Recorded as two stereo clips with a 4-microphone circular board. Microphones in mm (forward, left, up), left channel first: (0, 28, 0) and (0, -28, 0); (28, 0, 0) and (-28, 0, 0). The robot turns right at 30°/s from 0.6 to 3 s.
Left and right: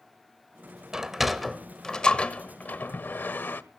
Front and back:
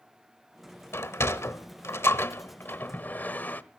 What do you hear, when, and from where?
0.9 s a sliding door: 15° right, 1.0 m; by 3.6 s 45° left, 1.0 m